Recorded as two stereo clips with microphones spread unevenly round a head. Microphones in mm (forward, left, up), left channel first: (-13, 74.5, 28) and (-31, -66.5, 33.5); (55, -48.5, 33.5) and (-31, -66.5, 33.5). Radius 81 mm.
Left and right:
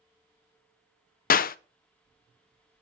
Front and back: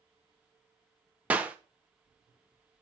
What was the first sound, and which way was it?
A clap, 115° left.